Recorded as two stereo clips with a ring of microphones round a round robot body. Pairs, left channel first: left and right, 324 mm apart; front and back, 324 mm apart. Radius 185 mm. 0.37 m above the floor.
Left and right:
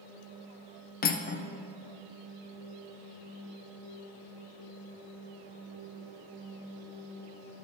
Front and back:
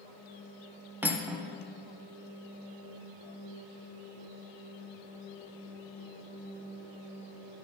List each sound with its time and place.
1.0 s cutlery clinking: 100° left, 0.5 m